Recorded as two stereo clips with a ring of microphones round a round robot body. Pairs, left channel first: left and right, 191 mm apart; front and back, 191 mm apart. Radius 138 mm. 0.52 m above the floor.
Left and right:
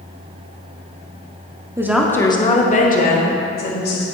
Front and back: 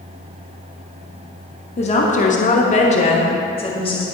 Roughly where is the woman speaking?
Ahead right.